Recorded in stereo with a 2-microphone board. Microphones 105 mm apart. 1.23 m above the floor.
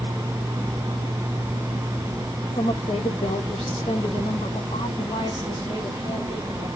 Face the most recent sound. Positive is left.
turn(degrees=45)  # may be behind; listen again after turning